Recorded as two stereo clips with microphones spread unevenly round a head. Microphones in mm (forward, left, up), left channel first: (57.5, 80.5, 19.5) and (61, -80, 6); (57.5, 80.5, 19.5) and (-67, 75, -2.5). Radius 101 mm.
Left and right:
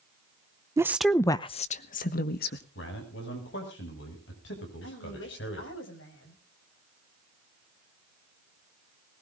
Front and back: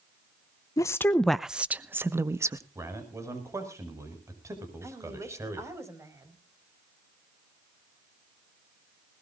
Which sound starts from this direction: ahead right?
A woman speaking, at 0.8 s.